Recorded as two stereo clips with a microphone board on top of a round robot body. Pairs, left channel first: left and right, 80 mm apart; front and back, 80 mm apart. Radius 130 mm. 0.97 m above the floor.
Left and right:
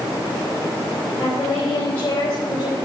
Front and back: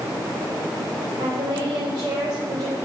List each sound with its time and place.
1.2 s a woman speaking: 175° left, 3 m; by 2.8 s 150° left, 4.5 m